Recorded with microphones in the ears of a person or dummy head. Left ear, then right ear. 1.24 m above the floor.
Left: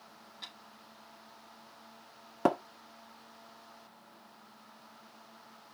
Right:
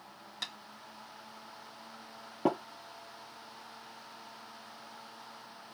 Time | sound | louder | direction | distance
0.4 | tapping | right 7 dB | 65° right (ahead or behind) | 2 m
2.5 | tapping | left 2 dB | 75° left (ahead or behind) | 1.3 m